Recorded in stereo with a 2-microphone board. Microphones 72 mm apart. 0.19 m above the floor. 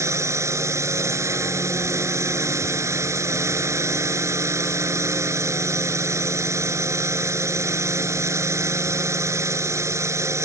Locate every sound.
0.0 s a drone: 40° right (ahead or behind)